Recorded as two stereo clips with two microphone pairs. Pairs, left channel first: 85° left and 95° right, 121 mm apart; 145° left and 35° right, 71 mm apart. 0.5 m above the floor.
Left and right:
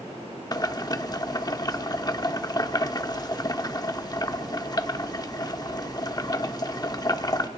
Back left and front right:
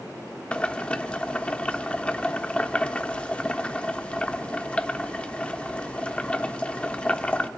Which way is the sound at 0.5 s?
80° left.